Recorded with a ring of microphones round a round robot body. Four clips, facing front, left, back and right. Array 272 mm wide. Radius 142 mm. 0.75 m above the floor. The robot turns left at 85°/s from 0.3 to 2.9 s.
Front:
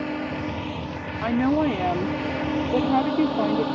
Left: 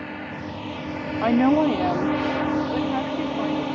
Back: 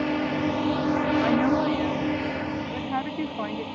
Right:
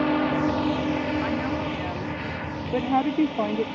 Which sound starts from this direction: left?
A woman speaking, at 1.2 s.